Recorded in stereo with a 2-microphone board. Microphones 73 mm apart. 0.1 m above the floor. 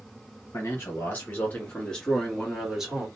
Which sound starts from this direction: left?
A man speaking, at 0.5 s.